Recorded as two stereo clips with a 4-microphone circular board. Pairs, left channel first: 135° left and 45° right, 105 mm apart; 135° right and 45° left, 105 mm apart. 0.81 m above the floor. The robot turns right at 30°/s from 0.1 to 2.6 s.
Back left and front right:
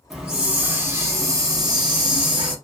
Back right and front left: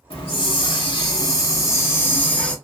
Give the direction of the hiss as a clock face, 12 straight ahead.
4 o'clock.